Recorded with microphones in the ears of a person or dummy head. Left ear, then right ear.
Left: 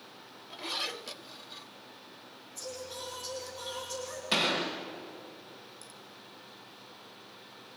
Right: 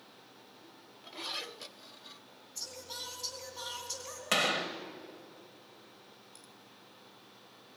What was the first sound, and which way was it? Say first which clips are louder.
Singing: left 1 dB; 20° right (ahead or behind).